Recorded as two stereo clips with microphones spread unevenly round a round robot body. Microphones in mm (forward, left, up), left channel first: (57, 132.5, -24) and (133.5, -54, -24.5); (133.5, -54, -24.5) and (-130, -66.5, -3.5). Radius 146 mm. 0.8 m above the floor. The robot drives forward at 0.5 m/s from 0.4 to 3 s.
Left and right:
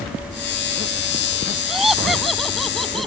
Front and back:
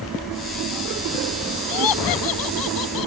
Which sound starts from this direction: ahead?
Laughter, at 1.7 s.